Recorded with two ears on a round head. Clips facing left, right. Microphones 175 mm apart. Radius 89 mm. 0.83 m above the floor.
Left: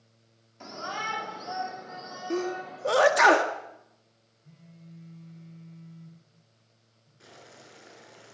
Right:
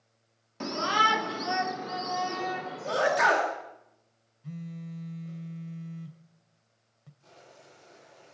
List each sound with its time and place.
0.6 s a shout: 70° right (ahead or behind), 1.7 m
2.3 s a sneeze: 65° left (ahead or behind), 1.7 m
4.4 s a phone buzzing: 85° right, 1.9 m
7.2 s boiling: 80° left, 7 m